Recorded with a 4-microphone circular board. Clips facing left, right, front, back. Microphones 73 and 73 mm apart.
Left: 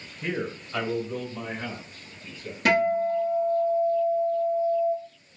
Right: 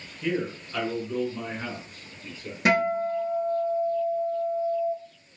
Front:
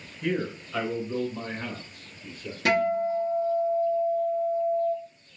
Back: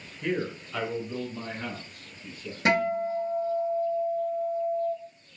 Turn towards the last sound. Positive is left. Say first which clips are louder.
# left 1 dB, front 1 dB
turn(degrees=-140)